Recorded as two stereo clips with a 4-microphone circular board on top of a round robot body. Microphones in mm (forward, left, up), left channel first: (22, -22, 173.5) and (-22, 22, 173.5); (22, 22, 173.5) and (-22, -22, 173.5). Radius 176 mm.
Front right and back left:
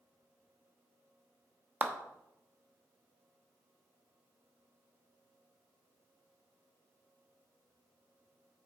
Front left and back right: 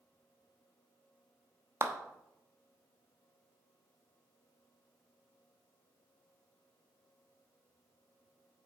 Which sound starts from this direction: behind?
A clap, at 1.8 s.